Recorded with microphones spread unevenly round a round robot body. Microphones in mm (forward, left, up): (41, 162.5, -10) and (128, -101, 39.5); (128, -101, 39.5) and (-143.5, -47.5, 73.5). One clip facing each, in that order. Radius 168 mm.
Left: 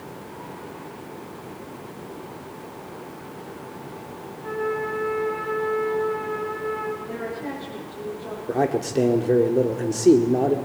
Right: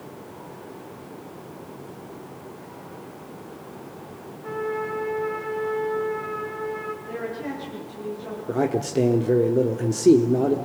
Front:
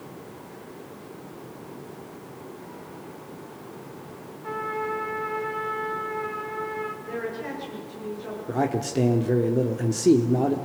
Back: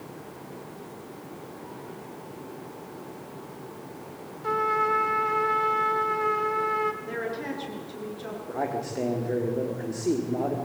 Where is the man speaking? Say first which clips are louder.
Even, front 6 dB; 15° left, 1.6 m.